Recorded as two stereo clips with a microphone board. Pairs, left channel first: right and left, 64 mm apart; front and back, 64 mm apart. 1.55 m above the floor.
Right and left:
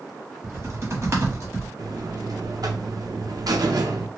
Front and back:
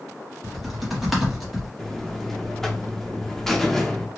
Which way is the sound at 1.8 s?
85° left.